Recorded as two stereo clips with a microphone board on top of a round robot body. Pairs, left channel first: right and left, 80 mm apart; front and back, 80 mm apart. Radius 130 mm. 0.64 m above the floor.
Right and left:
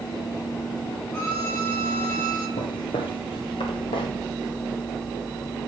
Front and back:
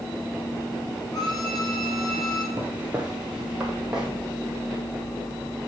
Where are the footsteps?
110° right, 0.8 m; by 4.1 s 100° right, 2.0 m.